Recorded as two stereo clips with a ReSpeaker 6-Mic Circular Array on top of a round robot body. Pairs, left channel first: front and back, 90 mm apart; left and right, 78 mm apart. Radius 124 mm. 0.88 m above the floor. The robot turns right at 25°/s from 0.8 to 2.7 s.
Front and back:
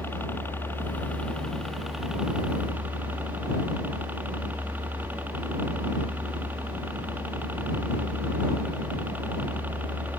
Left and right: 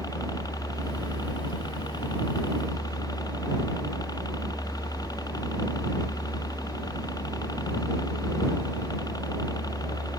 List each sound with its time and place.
0.0 s a helicopter: 65° left; by 10.2 s 110° left